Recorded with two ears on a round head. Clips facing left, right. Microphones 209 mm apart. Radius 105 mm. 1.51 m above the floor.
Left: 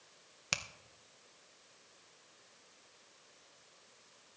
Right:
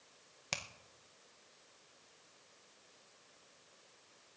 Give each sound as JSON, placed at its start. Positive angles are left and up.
{"t": 0.5, "sound": "a finger snap", "side_deg": 10, "distance_m": 0.6}